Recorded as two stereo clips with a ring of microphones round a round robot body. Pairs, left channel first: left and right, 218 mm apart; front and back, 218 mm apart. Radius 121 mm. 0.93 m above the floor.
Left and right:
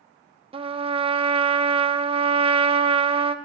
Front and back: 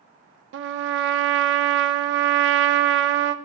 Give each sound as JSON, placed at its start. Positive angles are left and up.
{"t": 0.5, "sound": "a trumpet", "azimuth_deg": -155, "distance_m": 0.5}